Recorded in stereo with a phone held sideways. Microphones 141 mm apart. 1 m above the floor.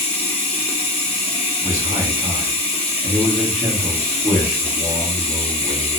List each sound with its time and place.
0.0 s running water: 45° left (ahead or behind), 0.7 m
1.6 s a man speaking: 35° right (ahead or behind), 1.3 m